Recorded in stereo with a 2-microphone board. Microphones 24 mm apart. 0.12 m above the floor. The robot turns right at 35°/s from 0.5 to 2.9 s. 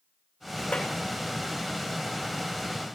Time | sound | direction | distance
0.7 | a clap | 50° left (ahead or behind) | 7.5 m